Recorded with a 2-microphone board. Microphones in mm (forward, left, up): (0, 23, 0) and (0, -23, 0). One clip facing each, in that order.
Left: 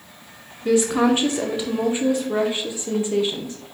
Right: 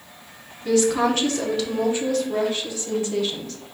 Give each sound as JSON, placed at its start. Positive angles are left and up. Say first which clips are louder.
{"t": 0.7, "sound": "a woman speaking", "louder": "left 1 dB", "side_deg": 20, "distance_m": 0.7}